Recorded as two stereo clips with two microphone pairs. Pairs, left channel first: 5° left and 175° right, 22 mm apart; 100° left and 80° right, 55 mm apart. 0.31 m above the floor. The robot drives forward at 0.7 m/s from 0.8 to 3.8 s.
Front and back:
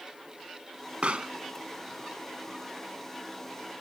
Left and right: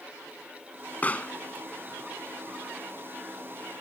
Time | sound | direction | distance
1.0 | a pop | 160° left | ?